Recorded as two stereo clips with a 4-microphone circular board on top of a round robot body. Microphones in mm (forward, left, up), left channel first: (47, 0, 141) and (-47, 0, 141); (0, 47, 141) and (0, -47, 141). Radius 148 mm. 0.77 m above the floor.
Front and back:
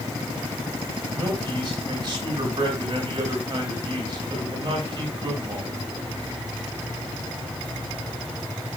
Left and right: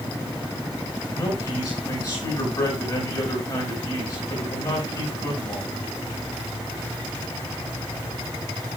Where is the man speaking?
135° left, 8.5 m.